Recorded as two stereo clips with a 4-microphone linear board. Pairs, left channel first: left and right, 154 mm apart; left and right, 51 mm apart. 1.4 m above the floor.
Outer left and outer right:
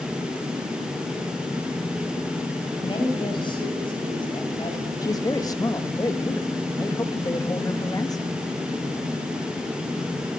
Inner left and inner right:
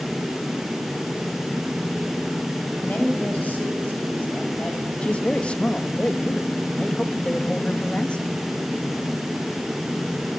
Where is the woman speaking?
30° left (ahead or behind), 10 m.